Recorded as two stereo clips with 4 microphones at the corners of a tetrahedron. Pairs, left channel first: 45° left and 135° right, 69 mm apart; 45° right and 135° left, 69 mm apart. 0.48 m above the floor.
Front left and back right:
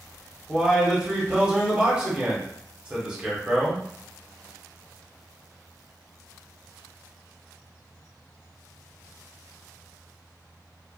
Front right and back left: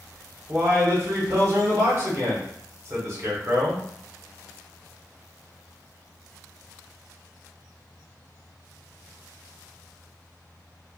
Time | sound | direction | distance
0.5 | a man speaking | 155° left | 0.9 m